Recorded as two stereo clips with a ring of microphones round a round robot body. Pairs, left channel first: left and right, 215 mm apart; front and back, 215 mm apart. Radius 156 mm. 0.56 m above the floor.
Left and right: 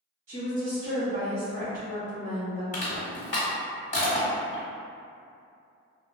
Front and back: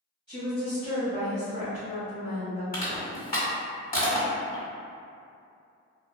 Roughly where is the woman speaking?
Right.